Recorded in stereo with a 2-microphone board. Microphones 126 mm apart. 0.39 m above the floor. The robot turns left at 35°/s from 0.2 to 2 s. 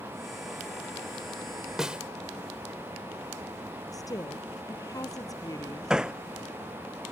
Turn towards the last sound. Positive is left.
turn(degrees=-5)  # may be behind; listen again after turning